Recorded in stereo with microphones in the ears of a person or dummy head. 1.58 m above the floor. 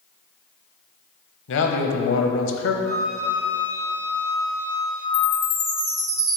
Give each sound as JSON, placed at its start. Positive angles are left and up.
{"t": 1.5, "sound": "a man speaking", "side_deg": 70, "distance_m": 0.7}
{"t": 2.8, "sound": "a flute", "side_deg": 10, "distance_m": 1.9}
{"t": 5.1, "sound": "a chime", "side_deg": -15, "distance_m": 1.2}